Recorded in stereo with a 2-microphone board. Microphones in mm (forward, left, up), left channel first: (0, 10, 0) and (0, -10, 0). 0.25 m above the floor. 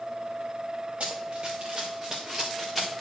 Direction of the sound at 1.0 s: 65° right (ahead or behind).